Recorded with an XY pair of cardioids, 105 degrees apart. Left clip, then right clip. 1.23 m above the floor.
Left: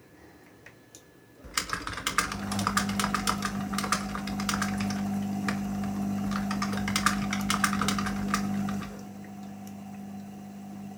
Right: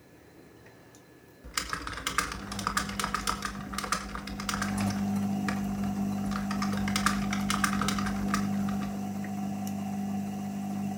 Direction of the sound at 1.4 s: 15° left.